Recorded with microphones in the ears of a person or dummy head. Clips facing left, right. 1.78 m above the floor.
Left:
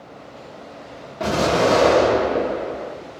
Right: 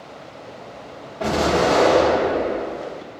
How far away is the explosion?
About 1.2 m.